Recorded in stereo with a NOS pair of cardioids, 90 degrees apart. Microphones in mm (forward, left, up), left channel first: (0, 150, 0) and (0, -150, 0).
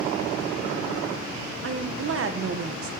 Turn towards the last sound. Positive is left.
turn(degrees=-50)